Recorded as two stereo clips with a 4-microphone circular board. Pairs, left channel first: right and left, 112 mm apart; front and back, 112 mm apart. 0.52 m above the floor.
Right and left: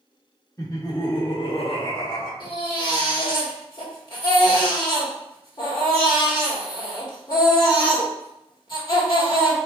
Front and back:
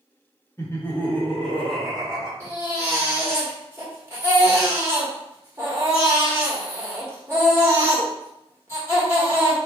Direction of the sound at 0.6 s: 50° right.